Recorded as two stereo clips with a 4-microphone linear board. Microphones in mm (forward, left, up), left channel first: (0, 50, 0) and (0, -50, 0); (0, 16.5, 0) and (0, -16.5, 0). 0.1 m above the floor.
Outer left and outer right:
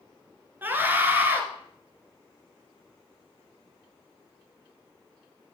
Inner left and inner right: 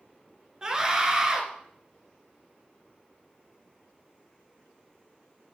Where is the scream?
20° right (ahead or behind), 1.3 m.